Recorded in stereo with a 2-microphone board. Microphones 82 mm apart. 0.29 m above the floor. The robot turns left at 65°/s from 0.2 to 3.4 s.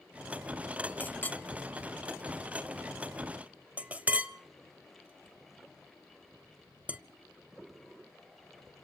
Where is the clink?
20° left (ahead or behind), 0.6 m; by 7.0 s 15° right (ahead or behind), 0.6 m.